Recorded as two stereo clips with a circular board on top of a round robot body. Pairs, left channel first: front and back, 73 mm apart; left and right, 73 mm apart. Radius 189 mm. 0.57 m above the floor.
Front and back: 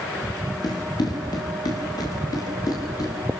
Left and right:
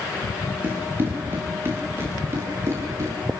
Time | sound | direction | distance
0.6 | running footsteps | 30° right | 7.5 m